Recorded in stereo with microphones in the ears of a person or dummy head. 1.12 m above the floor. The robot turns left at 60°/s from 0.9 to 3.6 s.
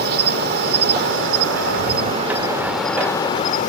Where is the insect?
70° right; by 3.7 s 130° left.